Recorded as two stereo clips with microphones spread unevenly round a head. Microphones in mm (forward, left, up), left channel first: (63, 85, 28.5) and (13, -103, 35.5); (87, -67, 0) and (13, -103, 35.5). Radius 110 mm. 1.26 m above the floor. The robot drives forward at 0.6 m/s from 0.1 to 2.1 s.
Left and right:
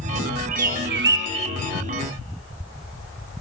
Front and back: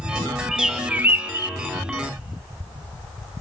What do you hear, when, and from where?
0.5 s a bird: 60° right, 1.0 m; by 1.5 s 95° right, 0.9 m